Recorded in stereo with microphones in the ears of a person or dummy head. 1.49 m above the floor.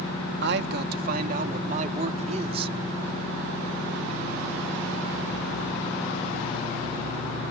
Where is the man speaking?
70° right (ahead or behind); by 2.8 s 35° right (ahead or behind).